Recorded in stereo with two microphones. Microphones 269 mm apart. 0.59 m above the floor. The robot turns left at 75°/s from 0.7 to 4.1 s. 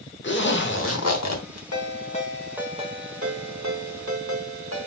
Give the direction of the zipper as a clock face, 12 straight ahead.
8 o'clock.